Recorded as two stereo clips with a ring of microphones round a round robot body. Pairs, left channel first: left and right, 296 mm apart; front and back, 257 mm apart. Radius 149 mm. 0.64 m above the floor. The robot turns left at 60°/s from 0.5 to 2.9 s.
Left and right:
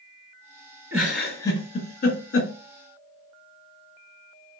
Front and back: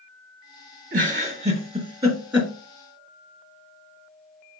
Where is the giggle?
175° right, 1.3 m; by 2.5 s 90° left, 1.3 m.